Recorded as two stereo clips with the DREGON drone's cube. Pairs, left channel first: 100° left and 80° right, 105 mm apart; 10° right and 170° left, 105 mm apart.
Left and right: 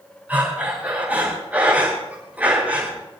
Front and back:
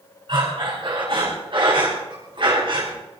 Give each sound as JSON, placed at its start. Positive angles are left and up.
{"t": 0.3, "sound": "breathing", "azimuth_deg": -155, "distance_m": 7.5}